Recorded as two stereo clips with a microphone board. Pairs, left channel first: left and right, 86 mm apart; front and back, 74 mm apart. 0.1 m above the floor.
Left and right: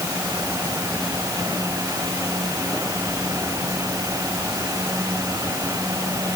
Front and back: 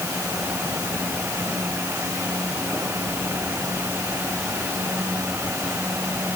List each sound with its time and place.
Only background noise.